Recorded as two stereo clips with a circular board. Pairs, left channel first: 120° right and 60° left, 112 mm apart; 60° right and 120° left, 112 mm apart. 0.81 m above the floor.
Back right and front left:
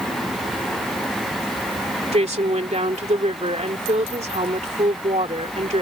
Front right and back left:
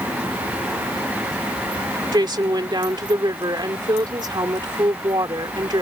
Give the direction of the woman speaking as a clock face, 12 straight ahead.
10 o'clock.